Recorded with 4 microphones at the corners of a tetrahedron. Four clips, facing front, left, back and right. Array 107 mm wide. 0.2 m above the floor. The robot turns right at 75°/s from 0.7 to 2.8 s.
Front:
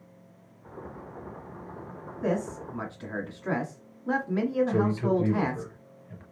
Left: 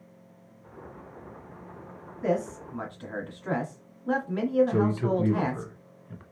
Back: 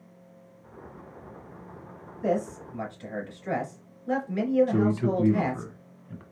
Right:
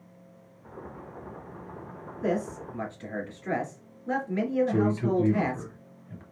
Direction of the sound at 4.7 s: 135° left.